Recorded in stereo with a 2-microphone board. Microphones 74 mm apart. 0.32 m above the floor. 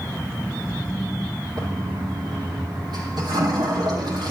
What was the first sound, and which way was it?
A toilet flushing, 85° right.